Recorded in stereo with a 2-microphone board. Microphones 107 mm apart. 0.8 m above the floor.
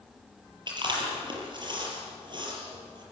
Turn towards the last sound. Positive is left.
turn(degrees=-45)  # may be behind; listen again after turning